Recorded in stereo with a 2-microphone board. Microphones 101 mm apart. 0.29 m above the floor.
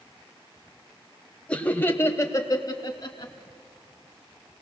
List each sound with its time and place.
1.5 s laughter: 10° left (ahead or behind), 1.6 m; by 3.3 s 50° left (ahead or behind), 1.9 m